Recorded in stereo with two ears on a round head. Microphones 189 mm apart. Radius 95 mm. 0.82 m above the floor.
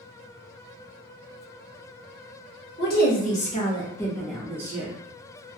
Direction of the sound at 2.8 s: 50° left (ahead or behind).